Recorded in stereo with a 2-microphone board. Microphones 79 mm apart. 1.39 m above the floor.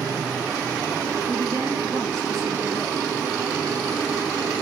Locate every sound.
1.3 s a woman speaking: 75° right (ahead or behind), 4 m